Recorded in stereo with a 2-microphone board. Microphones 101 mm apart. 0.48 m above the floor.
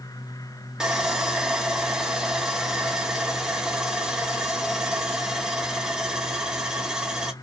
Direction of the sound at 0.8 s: 10° right (ahead or behind).